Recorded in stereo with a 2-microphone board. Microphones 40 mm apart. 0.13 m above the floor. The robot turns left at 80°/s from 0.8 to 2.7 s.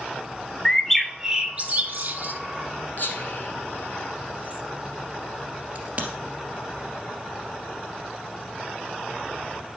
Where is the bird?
10° left (ahead or behind), 0.9 m; by 2.3 s 50° right (ahead or behind), 0.9 m.